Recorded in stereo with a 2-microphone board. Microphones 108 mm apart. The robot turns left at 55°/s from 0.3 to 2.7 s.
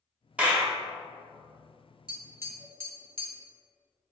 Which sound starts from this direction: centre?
A clap, at 0.4 s.